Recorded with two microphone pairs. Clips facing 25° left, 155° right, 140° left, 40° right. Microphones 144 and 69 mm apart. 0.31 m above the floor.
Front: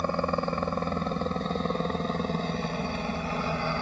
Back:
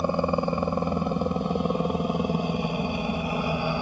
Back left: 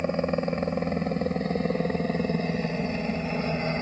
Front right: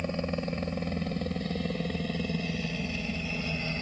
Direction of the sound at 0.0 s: 150° left.